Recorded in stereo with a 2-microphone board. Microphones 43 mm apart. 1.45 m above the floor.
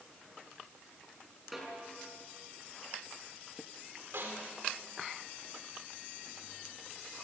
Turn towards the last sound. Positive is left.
turn(degrees=-65)  # may be behind; listen again after turning